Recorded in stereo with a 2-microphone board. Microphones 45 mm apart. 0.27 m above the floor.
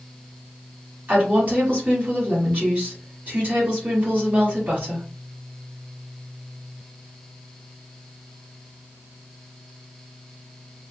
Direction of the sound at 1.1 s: 40° right (ahead or behind).